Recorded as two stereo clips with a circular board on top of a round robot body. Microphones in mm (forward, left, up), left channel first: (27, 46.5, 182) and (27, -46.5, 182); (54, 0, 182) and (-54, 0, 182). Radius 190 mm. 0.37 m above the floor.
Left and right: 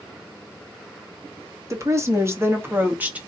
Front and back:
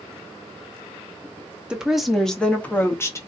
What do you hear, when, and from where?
1.7 s a woman speaking: 105° right, 1.5 m; by 3.3 s 25° right, 1.5 m